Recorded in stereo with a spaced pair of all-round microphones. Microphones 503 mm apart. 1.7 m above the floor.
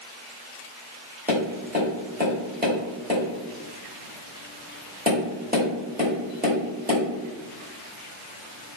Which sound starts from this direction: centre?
Tapping, at 1.3 s.